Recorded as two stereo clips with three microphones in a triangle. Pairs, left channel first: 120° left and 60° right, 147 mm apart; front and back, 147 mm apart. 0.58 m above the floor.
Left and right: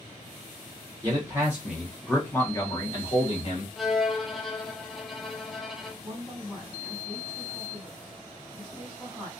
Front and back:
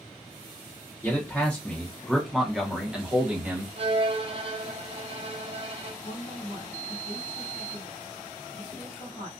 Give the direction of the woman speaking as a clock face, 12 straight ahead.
11 o'clock.